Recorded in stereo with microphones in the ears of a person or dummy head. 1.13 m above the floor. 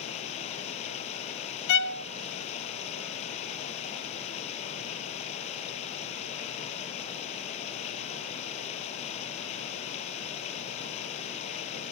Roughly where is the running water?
Left.